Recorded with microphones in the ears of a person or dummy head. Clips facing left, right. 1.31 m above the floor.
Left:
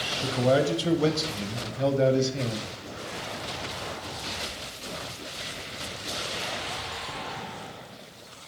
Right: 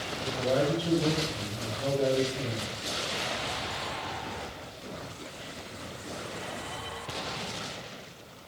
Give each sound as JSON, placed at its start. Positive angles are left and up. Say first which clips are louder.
{"t": 0.2, "sound": "a man speaking", "louder": "left 4 dB", "side_deg": 85, "distance_m": 1.0}